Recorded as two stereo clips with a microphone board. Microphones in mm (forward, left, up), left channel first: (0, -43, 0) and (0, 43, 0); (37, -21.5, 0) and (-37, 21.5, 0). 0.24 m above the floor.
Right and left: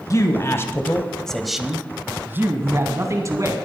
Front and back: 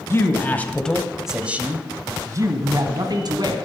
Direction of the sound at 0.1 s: 70° right.